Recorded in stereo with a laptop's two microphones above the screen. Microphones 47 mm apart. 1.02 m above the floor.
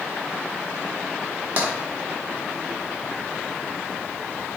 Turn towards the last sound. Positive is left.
turn(degrees=-45)  # may be behind; listen again after turning